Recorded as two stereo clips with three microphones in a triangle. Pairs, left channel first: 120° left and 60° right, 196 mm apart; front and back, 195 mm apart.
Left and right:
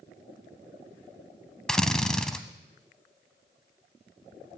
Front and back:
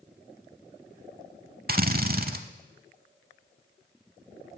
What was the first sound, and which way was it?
A drill, 155° right.